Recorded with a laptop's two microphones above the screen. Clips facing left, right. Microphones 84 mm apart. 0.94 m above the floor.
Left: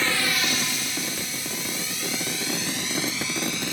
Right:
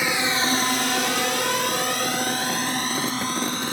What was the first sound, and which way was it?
A drone, 15° right (ahead or behind).